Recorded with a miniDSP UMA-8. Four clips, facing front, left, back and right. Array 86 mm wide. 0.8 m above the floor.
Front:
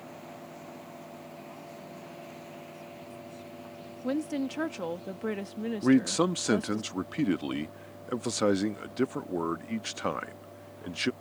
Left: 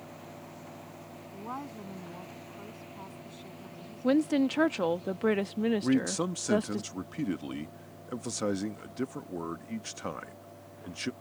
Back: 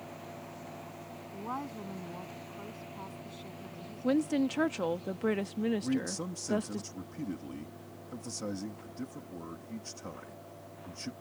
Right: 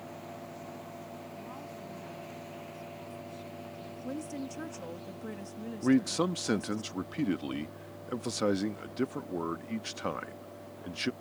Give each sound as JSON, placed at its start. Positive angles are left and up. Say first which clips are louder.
{"t": 1.3, "sound": "a woman speaking", "louder": "left 4 dB, back 6 dB", "azimuth_deg": 145}
{"t": 4.0, "sound": "a woman speaking", "louder": "left 14 dB, back 2 dB", "azimuth_deg": 95}
{"t": 5.8, "sound": "a man speaking", "louder": "right 1 dB, front 10 dB", "azimuth_deg": -10}